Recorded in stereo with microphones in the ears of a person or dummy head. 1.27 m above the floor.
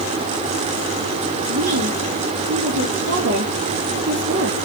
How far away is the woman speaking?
About 3.5 m.